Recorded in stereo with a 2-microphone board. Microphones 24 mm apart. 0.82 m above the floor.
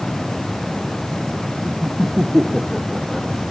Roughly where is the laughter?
Right.